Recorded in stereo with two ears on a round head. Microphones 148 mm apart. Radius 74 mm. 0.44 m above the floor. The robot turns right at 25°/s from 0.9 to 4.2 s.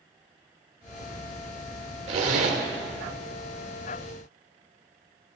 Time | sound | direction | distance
2.1 | a zipper | 40° right (ahead or behind) | 1.0 m